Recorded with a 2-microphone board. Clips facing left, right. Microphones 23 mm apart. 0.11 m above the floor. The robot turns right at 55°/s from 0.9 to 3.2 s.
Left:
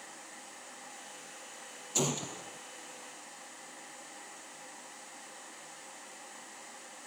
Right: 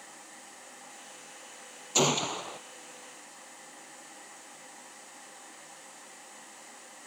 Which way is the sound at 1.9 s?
145° right.